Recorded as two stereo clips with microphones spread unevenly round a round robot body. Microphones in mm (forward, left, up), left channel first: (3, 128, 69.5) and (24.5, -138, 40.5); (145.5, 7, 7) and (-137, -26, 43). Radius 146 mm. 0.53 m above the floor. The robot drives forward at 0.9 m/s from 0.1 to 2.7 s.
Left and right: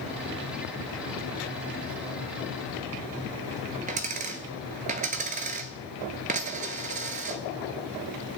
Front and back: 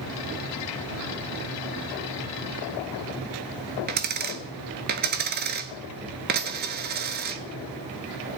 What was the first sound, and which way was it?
A dropped coin, 145° right.